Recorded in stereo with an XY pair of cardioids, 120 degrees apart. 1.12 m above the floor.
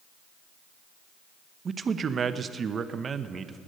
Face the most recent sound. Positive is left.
turn(degrees=-35)